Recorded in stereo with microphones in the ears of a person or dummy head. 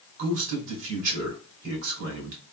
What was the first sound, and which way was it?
A man speaking, 70° right (ahead or behind).